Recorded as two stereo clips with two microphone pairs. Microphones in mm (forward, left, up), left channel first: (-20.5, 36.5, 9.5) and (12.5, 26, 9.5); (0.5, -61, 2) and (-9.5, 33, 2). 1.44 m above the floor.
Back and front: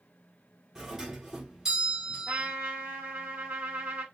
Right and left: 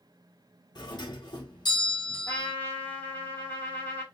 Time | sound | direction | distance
0.8 | a doorbell | 85° right | 0.9 m
2.3 | a trumpet | 15° right | 1.4 m